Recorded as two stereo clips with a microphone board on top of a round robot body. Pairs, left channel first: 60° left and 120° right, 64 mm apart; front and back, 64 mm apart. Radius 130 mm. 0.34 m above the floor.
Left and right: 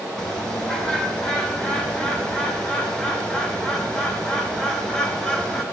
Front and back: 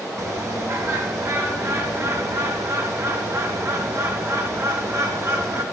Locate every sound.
0.2 s a bird: 135° left, 2.5 m